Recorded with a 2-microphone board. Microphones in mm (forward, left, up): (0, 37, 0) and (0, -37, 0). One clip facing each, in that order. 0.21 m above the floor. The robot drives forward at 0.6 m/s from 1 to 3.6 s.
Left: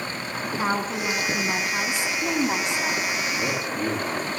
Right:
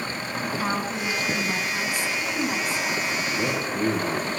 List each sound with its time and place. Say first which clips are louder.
0.6 s a woman speaking: left 4 dB; 20° left (ahead or behind), 2.5 m; by 3.0 s 25° left (ahead or behind), 1.7 m
3.1 s a man speaking: right 1 dB; 55° right (ahead or behind), 4 m; by 4.4 s 50° right (ahead or behind), 4 m